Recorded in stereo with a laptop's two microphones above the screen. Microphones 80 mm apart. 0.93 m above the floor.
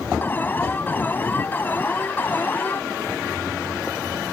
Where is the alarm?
25° left (ahead or behind).